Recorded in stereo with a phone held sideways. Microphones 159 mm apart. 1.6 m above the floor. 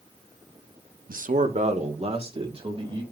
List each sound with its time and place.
1.1 s a man speaking: 65° right (ahead or behind), 0.7 m; by 3.0 s 35° right (ahead or behind), 3 m